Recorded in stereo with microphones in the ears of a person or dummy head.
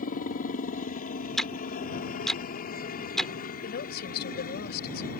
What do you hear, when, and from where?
0.0 s a helicopter: 45° left (ahead or behind)
1.4 s ticking: 5° left (ahead or behind)
3.6 s a woman speaking: 55° left (ahead or behind)